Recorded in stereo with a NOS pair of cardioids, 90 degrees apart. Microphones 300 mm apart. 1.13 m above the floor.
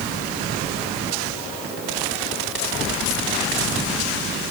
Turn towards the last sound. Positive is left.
No sound to turn to.